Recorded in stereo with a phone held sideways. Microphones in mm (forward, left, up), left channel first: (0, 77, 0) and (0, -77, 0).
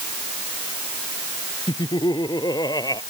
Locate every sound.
1.7 s laughter: 30° left (ahead or behind); by 3.0 s 25° left (ahead or behind)